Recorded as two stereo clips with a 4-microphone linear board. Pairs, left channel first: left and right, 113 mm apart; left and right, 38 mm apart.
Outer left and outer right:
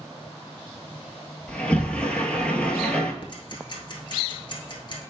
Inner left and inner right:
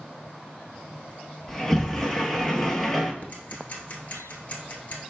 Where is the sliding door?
10° left (ahead or behind), 0.6 m.